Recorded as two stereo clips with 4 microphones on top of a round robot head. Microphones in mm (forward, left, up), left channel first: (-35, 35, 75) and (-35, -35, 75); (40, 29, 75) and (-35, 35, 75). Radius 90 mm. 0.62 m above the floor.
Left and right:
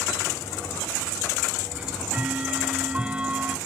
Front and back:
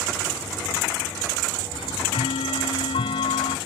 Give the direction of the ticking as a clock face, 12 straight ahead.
12 o'clock.